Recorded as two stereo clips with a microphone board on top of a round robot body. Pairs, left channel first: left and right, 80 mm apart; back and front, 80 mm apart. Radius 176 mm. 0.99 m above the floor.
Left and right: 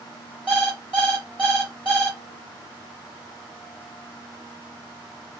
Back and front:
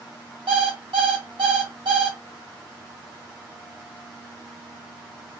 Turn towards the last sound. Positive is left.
turn(degrees=-20)